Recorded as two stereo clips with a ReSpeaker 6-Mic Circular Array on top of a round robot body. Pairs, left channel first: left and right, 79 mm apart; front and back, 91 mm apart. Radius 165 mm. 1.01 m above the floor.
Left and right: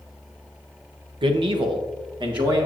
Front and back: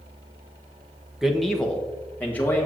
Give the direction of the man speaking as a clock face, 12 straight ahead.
3 o'clock.